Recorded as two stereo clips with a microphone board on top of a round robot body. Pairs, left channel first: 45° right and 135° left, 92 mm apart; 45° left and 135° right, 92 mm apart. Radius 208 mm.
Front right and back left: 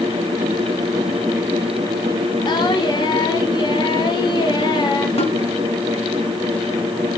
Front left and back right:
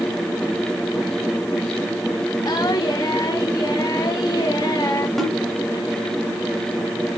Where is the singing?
5° right, 1.4 m.